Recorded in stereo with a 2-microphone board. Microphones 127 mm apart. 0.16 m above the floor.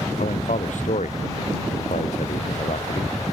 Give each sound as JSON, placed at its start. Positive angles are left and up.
{"t": 0.2, "sound": "a man speaking", "side_deg": 75}